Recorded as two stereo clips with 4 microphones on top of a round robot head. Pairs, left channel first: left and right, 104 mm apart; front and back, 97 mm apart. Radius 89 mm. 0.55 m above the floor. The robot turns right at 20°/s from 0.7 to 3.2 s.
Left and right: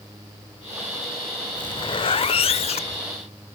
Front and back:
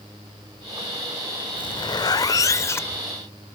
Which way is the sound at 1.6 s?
40° left.